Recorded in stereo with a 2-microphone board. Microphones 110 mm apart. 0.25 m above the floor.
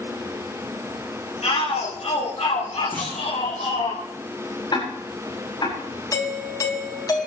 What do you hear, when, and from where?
1.4 s a shout: 80° left, 5 m
2.9 s a clunk: 15° left (ahead or behind), 6.5 m
4.7 s ticking: 40° left (ahead or behind), 8.5 m
6.1 s a doorbell: 35° left (ahead or behind), 2.5 m